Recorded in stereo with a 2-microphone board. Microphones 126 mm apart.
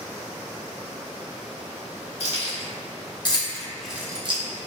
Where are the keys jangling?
55° left (ahead or behind), 1.6 m; by 4.4 s 50° right (ahead or behind), 0.6 m.